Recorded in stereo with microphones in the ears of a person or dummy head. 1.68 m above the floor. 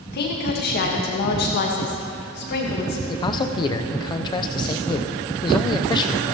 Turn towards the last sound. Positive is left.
turn(degrees=20)  # may be behind; listen again after turning